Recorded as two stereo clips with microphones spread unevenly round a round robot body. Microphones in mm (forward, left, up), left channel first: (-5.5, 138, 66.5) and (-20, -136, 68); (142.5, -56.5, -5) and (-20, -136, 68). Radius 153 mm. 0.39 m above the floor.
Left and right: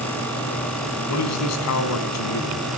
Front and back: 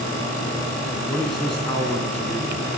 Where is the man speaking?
110° left, 3.5 m.